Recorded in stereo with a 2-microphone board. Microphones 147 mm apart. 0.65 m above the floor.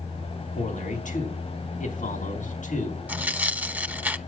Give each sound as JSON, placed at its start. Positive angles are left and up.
{"t": 0.5, "sound": "a man speaking", "side_deg": 60, "distance_m": 5.0}
{"t": 3.1, "sound": "tearing paper", "side_deg": -10, "distance_m": 0.7}